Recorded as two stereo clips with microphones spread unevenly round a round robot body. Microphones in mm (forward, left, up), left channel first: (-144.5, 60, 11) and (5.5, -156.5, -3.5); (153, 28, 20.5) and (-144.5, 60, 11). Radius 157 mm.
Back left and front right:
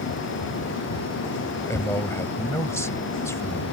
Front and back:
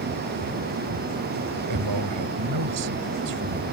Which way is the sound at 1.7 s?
155° right.